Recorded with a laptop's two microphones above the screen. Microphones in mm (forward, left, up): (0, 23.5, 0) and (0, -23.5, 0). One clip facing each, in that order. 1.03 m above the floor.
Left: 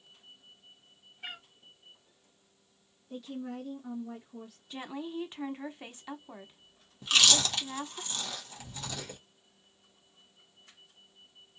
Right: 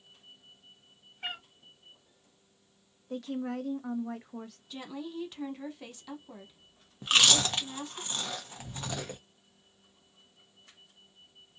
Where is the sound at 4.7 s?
30° left (ahead or behind), 0.9 m.